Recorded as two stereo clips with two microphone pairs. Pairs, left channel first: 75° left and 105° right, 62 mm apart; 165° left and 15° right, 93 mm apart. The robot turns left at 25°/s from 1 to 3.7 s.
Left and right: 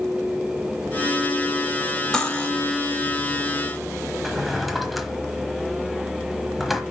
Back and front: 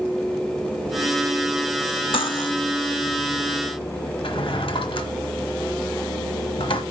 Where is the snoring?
I don't hear snoring.